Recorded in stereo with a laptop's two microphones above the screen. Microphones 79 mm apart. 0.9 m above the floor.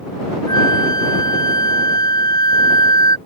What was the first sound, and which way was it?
A flute, 60° left (ahead or behind).